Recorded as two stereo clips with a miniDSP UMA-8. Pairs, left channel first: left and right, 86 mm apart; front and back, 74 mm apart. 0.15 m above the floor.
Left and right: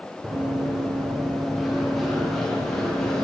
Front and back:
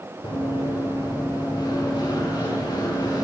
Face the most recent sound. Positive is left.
turn(degrees=5)